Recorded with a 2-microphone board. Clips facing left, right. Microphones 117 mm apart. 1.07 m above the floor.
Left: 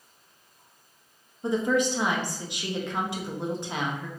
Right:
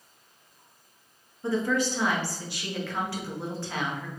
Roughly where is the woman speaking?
Centre.